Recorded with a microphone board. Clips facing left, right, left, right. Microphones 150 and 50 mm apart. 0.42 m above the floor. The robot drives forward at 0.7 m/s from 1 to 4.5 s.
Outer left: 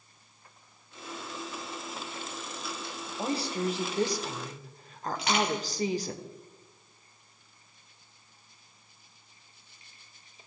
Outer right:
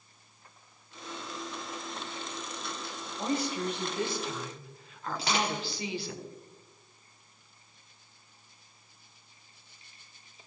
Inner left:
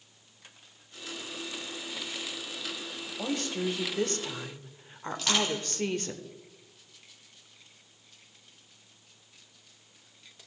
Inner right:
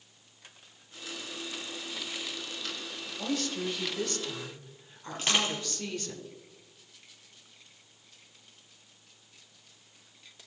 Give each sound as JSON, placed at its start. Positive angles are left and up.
{"t": 3.2, "sound": "a woman speaking", "side_deg": 30, "distance_m": 1.5}
{"t": 5.2, "sound": "crushing", "side_deg": -30, "distance_m": 4.0}